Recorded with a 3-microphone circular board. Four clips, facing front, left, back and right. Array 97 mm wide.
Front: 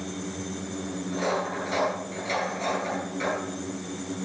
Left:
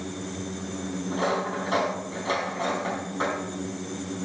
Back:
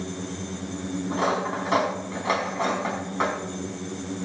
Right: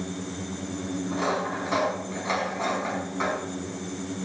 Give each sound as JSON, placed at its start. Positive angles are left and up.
{"t": 1.1, "sound": "cutlery clinking", "azimuth_deg": 180, "distance_m": 3.5}